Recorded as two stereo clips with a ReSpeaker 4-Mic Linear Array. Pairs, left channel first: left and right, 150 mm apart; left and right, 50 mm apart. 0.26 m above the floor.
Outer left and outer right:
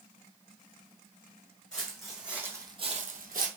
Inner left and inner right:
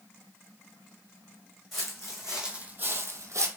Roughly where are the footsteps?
Centre.